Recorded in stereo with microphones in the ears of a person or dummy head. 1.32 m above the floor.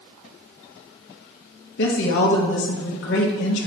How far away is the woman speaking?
About 1.1 m.